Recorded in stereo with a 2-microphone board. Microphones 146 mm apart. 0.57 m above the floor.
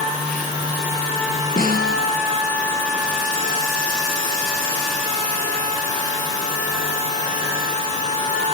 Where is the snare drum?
85° left, 4 m.